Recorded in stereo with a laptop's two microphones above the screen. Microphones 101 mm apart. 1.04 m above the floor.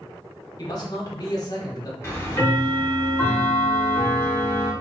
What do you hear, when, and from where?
0.6 s a man speaking: 40° left (ahead or behind), 1.0 m
2.0 s ticking: 25° left (ahead or behind), 0.9 m